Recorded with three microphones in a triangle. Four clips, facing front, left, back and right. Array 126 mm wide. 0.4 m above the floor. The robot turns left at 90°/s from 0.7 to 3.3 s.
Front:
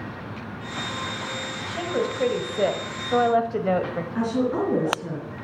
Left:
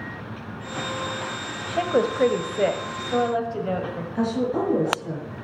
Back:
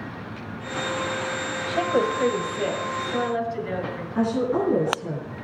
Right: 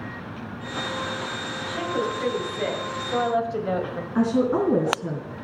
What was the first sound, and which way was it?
A woman speaking, 135° left.